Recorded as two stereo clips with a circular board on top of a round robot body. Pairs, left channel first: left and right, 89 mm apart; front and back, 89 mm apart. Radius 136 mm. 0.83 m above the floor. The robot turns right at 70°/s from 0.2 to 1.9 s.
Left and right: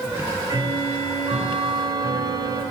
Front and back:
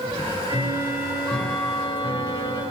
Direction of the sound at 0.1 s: 160° right.